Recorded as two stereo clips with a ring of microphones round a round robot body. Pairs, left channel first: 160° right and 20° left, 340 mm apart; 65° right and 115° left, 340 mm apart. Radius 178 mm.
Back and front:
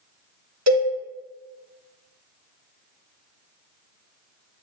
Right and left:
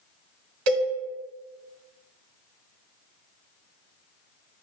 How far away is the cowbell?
About 1.2 m.